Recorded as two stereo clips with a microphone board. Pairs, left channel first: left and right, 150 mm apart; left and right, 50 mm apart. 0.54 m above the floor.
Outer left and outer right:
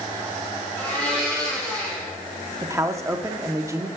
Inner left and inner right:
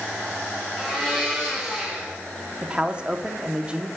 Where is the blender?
10° left (ahead or behind), 4.5 m.